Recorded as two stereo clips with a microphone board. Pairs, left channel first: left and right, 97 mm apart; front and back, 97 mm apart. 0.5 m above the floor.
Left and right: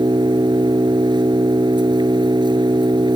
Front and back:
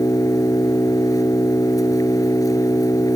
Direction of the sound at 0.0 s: 50° right.